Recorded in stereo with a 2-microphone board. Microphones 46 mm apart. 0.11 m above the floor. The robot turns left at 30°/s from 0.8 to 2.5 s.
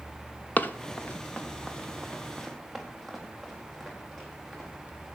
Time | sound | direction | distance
0.6 | running footsteps | 35° left (ahead or behind) | 1.1 m